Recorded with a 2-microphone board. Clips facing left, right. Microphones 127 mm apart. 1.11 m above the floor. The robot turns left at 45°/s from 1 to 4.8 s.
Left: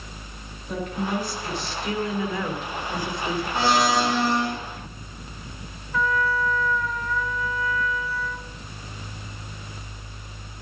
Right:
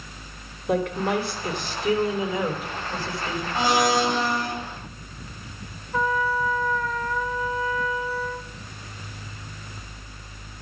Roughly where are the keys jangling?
No keys jangling in this recording.